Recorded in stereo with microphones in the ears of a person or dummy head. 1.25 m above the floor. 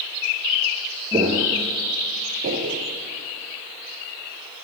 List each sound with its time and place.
1.1 s footsteps: 15° right (ahead or behind), 1.3 m; by 2.8 s 45° right (ahead or behind), 1.8 m